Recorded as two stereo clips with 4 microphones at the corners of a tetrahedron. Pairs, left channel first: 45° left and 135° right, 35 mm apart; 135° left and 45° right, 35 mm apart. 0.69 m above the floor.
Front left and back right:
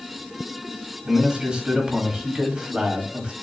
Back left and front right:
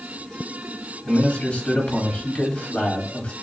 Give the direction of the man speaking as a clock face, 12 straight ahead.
6 o'clock.